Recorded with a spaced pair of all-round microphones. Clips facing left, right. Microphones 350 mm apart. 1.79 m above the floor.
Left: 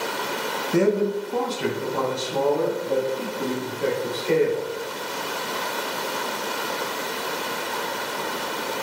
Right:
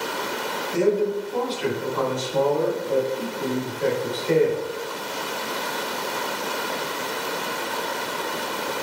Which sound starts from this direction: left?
A man speaking, at 0.7 s.